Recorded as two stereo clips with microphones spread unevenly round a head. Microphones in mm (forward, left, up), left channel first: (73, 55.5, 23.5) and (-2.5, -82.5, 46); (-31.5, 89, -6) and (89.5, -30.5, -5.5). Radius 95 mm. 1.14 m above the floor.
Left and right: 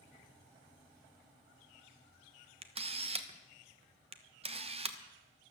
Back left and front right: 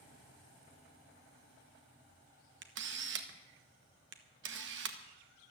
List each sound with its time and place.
2.6 s a camera shutter: 65° right, 1.3 m